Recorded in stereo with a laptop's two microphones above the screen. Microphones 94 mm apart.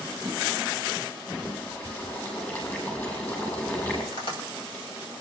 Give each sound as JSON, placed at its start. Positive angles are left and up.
{"t": 1.3, "sound": "boiling", "side_deg": 25, "distance_m": 5.5}
{"t": 4.1, "sound": "tapping", "side_deg": 80, "distance_m": 6.0}